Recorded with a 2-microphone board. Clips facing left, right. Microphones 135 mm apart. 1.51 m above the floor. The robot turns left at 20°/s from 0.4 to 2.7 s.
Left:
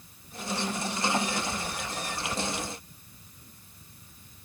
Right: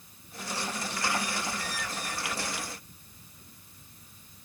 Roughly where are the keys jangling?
I don't hear keys jangling.